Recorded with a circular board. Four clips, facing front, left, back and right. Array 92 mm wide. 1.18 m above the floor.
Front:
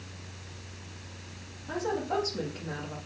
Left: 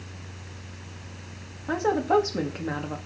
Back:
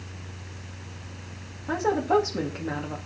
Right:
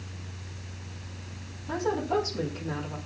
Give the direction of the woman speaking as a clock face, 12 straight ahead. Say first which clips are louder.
Left 5 dB, back 8 dB; 8 o'clock.